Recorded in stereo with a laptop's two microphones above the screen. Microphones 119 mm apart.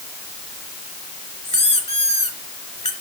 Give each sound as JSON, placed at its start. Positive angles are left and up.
{"t": 1.4, "sound": "a squeak", "side_deg": 70, "distance_m": 2.0}